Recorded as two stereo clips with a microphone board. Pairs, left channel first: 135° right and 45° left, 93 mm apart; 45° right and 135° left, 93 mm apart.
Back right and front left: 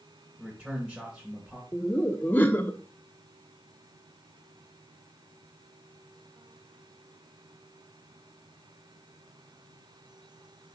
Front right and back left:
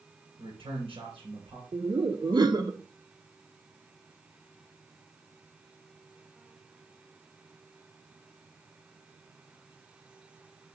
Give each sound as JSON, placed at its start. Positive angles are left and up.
{"t": 0.4, "sound": "a man speaking", "azimuth_deg": 125, "distance_m": 2.5}
{"t": 1.7, "sound": "laughter", "azimuth_deg": 160, "distance_m": 0.9}